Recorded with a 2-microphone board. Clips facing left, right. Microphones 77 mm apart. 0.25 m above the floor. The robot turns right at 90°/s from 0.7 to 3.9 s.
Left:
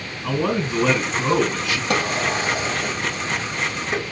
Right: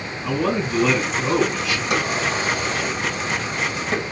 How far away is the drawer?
About 2.5 m.